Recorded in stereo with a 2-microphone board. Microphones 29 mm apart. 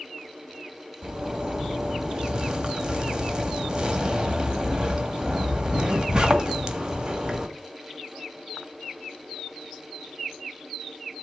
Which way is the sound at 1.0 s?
30° right (ahead or behind).